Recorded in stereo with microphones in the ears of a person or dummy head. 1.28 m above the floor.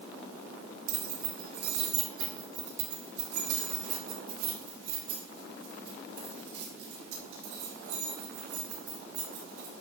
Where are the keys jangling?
45° right (ahead or behind), 2 m; by 9.7 s 85° right, 6.5 m.